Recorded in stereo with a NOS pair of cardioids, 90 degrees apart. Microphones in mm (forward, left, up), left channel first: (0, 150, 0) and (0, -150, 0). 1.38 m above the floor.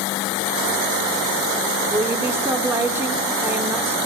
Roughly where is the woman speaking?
Ahead.